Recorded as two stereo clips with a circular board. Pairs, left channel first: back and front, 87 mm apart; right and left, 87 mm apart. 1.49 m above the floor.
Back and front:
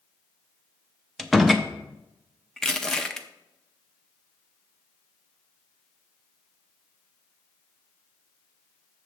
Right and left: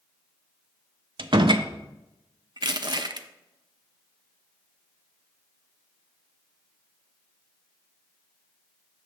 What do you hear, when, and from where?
1.2 s a door slam: 90° left, 0.5 m
2.6 s crushing: 95° left, 0.5 m